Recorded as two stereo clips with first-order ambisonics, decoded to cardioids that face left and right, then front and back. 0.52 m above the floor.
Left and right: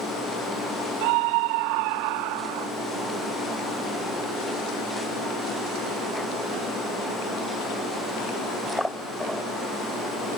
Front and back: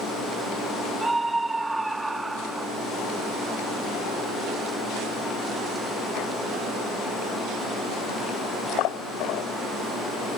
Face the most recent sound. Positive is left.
turn(degrees=-100)